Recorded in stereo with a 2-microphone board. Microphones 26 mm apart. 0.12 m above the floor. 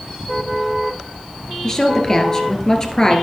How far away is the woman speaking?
About 1.7 m.